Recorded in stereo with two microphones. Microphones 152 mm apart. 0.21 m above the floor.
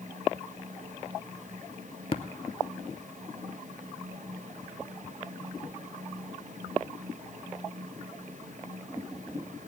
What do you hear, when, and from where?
2.1 s tapping: 45° left (ahead or behind), 0.6 m